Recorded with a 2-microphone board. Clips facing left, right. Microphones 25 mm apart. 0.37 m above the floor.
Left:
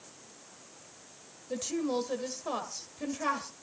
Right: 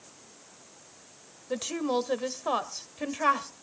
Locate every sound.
1.5 s a woman speaking: 30° right (ahead or behind), 1.5 m